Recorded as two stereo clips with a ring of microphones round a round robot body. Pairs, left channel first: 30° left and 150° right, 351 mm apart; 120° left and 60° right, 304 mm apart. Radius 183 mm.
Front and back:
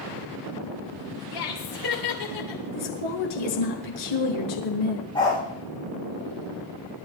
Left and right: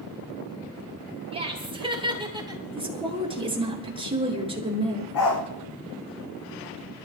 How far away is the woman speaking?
About 7 m.